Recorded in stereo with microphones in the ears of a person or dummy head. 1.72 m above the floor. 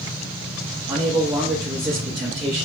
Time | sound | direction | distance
0.9 | a man speaking | 20° right (ahead or behind) | 0.6 m